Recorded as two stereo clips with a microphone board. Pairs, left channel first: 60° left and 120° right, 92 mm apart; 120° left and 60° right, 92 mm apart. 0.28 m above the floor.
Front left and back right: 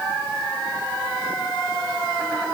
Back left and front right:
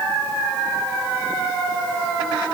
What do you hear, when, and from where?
Only background noise.